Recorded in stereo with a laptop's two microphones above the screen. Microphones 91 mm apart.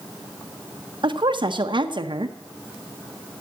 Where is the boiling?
No boiling in this recording.